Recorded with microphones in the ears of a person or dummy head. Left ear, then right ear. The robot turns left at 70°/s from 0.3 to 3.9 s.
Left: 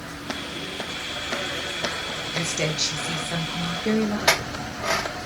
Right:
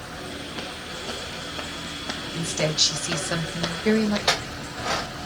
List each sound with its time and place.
2.3 s a woman speaking: 15° left, 0.6 m; by 4.2 s 95° right, 0.6 m
4.3 s a clink: 10° left (ahead or behind), 0.7 m